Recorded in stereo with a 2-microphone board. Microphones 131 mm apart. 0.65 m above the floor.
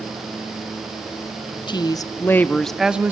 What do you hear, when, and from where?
1.7 s a woman speaking: 35° left (ahead or behind), 1.0 m; by 3.1 s 15° right (ahead or behind), 0.9 m